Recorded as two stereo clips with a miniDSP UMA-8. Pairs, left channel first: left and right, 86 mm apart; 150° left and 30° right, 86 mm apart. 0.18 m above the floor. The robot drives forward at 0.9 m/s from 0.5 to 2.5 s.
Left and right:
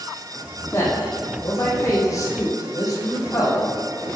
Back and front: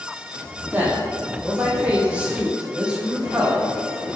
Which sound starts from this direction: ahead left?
A man speaking, at 0.7 s.